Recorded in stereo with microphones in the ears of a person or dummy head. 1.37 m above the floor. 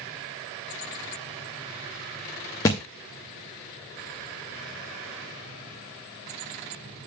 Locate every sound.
2.6 s a thud: 20° left (ahead or behind), 0.8 m